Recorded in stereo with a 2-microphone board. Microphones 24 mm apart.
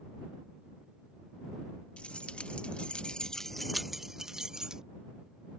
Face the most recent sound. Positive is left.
turn(degrees=-35)  # may be behind; listen again after turning